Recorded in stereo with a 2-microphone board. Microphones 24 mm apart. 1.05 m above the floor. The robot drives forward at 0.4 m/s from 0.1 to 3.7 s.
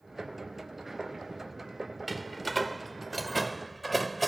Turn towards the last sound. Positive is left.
turn(degrees=0)  # may be behind; listen again after turning